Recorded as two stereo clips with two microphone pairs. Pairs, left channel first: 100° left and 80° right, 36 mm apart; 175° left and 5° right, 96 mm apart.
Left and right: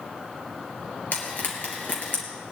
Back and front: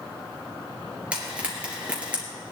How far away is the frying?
About 3 m.